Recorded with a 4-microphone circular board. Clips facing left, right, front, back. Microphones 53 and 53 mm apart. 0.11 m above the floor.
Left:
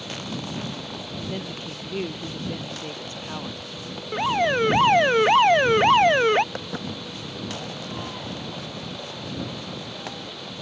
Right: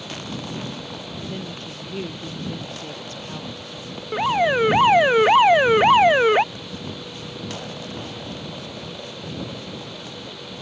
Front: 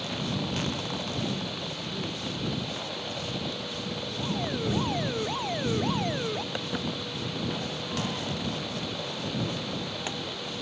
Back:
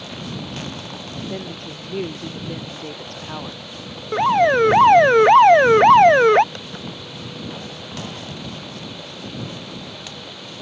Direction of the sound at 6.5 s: 80° left.